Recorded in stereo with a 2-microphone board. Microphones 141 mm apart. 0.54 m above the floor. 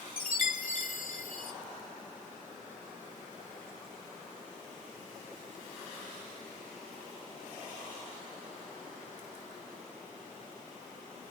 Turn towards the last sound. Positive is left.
turn(degrees=75)  # may be behind; listen again after turning